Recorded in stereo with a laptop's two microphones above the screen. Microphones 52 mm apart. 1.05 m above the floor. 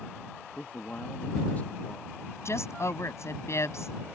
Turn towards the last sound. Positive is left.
turn(degrees=60)  # may be behind; listen again after turning